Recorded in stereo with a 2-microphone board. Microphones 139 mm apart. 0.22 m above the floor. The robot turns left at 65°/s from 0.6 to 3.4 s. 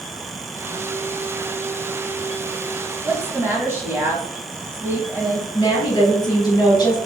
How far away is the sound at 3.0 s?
About 1.0 m.